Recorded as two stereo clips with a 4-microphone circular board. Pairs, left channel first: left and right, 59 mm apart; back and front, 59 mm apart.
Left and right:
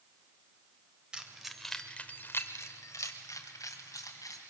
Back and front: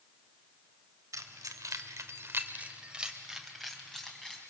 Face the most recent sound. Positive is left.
turn(degrees=100)